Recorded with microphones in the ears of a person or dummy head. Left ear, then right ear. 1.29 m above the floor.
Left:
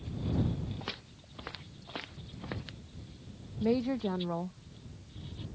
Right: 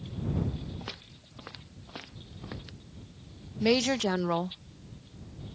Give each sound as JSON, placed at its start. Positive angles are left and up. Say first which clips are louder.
{"t": 0.8, "sound": "footsteps", "louder": "left 1 dB", "side_deg": 5}
{"t": 3.6, "sound": "a woman speaking", "louder": "right 6 dB", "side_deg": -70}